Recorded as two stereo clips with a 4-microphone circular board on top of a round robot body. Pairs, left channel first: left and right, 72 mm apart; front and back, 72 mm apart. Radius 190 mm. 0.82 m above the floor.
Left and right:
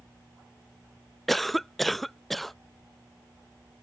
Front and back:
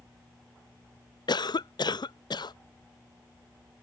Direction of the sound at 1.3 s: Straight ahead.